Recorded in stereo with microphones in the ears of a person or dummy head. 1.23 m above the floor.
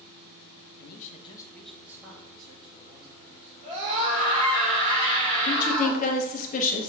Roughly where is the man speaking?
Left.